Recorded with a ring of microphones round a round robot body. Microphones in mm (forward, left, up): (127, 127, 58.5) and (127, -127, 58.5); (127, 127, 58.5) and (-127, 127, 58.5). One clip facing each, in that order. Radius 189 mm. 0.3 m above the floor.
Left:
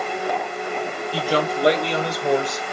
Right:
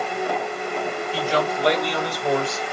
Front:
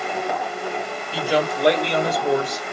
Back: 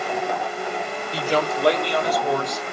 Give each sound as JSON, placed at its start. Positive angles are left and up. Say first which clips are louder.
{"t": 1.1, "sound": "a man speaking", "louder": "left 2 dB, front 1 dB", "azimuth_deg": 80, "distance_m": 1.7}